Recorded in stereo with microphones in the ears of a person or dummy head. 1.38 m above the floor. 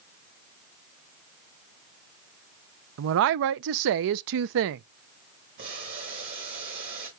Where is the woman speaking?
60° right (ahead or behind), 0.5 m.